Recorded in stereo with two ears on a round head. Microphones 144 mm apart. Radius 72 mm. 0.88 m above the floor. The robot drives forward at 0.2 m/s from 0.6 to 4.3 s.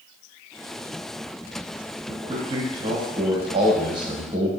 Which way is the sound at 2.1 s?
30° right (ahead or behind).